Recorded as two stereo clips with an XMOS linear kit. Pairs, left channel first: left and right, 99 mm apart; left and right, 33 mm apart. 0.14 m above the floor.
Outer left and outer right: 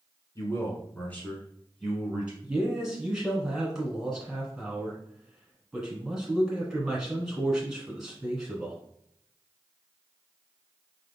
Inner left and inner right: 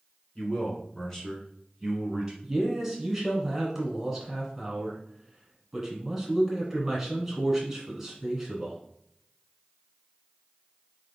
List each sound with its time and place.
0.3 s a man speaking: 30° left (ahead or behind), 1.4 m; by 2.3 s 15° right (ahead or behind), 1.3 m
2.4 s a man speaking: 5° right (ahead or behind), 1.6 m